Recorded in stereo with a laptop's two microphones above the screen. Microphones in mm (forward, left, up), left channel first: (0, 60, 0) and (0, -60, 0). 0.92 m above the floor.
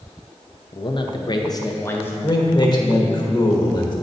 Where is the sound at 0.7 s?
45° left (ahead or behind), 0.8 m; by 2.1 s 15° left (ahead or behind), 0.7 m.